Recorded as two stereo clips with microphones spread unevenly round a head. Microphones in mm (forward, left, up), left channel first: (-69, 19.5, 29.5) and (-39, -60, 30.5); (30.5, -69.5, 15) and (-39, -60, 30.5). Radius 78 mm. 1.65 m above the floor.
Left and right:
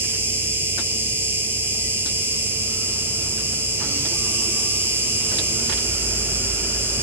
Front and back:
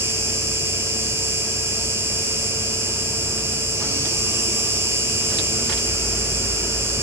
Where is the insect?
135° right, 1.8 m.